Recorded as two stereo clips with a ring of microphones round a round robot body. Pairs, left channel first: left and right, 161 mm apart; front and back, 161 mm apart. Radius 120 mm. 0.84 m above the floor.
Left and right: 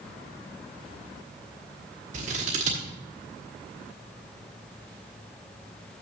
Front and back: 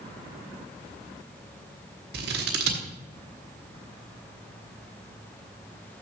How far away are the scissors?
About 1.2 m.